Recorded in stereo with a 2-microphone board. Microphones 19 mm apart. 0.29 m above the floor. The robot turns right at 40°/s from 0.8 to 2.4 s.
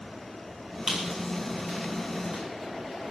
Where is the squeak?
40° right (ahead or behind), 4.5 m; by 2.4 s 80° right, 4.5 m.